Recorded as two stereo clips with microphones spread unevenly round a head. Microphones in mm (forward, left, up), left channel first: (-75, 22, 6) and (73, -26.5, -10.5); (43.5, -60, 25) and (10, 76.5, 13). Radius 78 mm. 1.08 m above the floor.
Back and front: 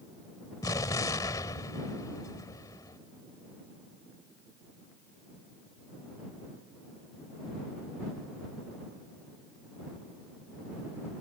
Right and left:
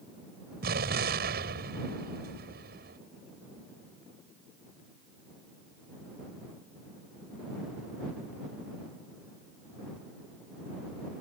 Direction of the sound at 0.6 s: 95° left.